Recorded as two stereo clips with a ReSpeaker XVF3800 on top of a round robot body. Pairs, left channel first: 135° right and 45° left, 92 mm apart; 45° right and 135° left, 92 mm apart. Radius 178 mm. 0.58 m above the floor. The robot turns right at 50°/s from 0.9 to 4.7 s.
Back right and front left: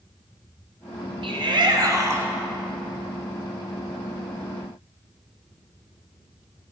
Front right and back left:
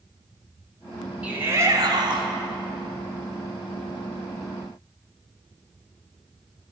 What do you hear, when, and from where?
1.2 s a shout: 60° left, 2.0 m; by 2.3 s 110° left, 2.0 m